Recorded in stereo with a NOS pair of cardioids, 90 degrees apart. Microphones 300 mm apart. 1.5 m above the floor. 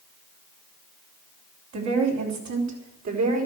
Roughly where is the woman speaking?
Ahead right.